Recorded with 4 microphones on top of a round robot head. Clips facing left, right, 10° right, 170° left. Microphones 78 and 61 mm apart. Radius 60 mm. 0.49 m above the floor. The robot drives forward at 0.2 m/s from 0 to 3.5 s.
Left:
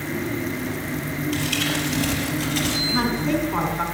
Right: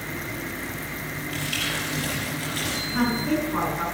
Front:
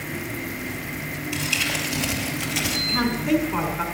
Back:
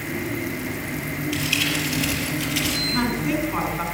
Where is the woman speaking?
80° left, 4.5 m; by 3.8 s 85° left, 4.5 m.